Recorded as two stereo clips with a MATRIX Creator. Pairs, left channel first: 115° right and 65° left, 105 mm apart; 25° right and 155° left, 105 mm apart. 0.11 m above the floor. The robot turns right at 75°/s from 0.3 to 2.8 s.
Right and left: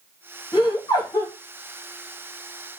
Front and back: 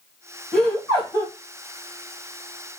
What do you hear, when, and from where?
0.5 s laughter: 120° right, 1.5 m; by 1.3 s 60° right, 1.5 m